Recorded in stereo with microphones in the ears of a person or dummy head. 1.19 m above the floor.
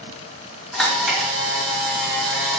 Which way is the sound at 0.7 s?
Centre (ahead or behind).